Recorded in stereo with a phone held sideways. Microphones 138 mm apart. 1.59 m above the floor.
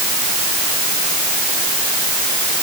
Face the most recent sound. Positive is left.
No sound to turn to.